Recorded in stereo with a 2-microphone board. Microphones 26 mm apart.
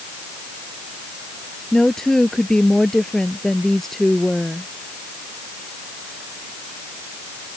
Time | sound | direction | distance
1.7 | a woman speaking | 20° left (ahead or behind) | ?